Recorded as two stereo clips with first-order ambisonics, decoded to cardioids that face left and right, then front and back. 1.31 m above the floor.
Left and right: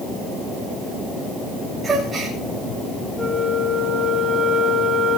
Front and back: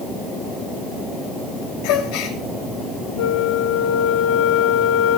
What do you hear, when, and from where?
1.8 s a gasp: 15° right, 7.5 m
3.2 s a flute: 5° right, 3 m